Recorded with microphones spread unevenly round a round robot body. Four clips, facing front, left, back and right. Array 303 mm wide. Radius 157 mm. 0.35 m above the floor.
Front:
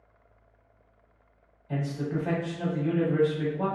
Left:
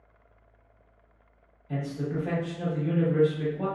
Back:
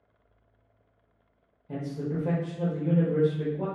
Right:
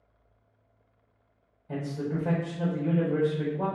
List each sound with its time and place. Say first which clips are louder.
1.7 s a man speaking: even, front 1 dB; 135° right, 1.0 m